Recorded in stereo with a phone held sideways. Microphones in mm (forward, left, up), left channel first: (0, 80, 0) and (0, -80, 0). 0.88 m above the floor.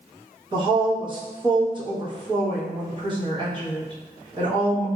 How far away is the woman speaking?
About 1.3 m.